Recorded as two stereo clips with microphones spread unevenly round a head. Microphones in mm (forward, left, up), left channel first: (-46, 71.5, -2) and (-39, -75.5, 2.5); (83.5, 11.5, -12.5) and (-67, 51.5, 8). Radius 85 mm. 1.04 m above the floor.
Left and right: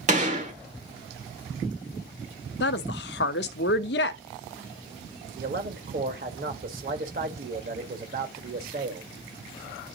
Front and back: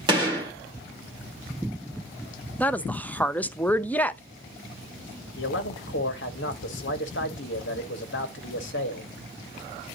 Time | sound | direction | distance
0.1 | a gunshot | 130° right | 1.9 m
2.6 | a woman speaking | 65° left | 0.7 m
5.4 | a man speaking | 40° right | 1.4 m